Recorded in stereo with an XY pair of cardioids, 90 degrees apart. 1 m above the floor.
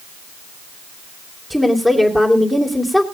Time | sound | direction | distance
1.5 | a woman speaking | 5° right | 3 m